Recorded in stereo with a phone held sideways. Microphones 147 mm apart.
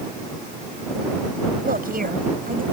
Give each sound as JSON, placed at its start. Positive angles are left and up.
{"t": 1.6, "sound": "a woman speaking", "side_deg": -85}